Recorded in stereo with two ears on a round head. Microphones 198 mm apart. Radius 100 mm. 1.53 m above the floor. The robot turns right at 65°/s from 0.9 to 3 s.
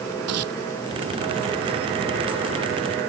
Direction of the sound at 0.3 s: 85° right.